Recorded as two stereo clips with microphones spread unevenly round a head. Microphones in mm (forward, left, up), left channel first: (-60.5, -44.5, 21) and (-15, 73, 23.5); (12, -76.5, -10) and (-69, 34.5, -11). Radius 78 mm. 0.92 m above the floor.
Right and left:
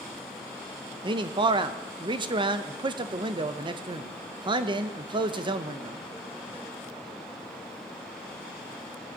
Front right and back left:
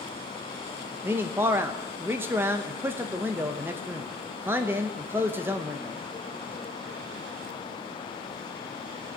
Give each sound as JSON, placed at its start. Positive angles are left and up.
{"t": 1.0, "sound": "a man speaking", "azimuth_deg": 60, "distance_m": 0.7}